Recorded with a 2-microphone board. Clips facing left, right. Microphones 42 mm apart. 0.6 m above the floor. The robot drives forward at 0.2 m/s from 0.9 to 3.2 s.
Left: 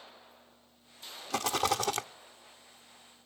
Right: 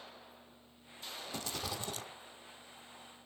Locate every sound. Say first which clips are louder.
1.3 s a rattle: left 13 dB; 80° left, 0.5 m; by 2.1 s 75° left (ahead or behind), 0.5 m